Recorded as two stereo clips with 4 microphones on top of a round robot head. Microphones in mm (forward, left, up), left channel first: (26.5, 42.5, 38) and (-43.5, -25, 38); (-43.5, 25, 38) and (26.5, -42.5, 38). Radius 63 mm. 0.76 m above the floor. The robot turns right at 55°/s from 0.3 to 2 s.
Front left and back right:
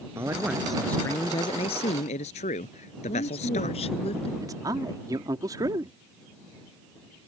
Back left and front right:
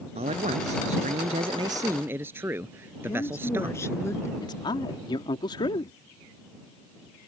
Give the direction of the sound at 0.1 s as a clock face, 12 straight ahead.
2 o'clock.